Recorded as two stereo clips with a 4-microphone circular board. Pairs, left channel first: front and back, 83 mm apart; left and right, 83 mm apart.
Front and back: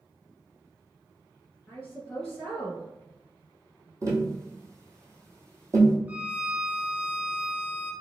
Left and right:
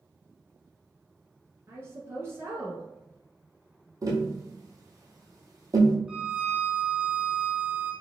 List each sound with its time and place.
1.7 s a woman speaking: 75° right, 1.5 m
4.0 s tapping: 130° right, 1.3 m
6.1 s a violin: 155° right, 0.5 m